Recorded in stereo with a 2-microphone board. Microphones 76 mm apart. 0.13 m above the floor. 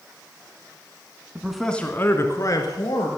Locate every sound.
1.4 s a man speaking: 10° right (ahead or behind), 1.1 m; by 3.1 s 60° left (ahead or behind), 2 m